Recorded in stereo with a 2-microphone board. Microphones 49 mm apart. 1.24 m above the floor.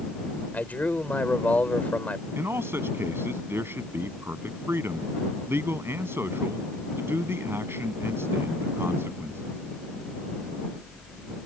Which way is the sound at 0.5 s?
35° left (ahead or behind).